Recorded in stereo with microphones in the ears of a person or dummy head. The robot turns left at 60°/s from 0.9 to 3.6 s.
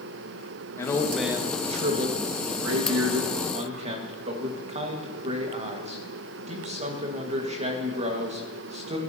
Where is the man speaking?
20° left, 1.5 m; by 9.0 s 140° right, 1.5 m.